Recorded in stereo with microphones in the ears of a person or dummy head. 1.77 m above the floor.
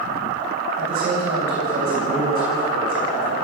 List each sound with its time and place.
0.8 s a man speaking: 40° right (ahead or behind), 9 m